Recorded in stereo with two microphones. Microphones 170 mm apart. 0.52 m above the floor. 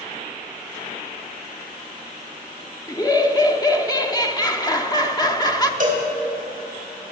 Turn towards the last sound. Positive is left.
turn(degrees=-55)  # may be behind; listen again after turning